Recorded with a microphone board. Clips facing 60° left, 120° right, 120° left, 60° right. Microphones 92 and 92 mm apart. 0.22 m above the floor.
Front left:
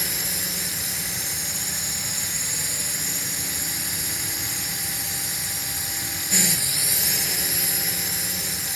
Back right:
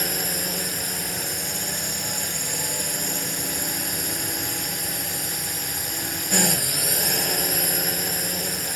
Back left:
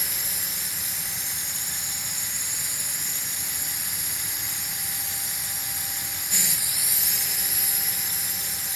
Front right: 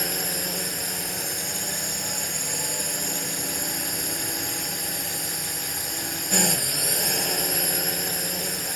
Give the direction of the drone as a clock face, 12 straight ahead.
3 o'clock.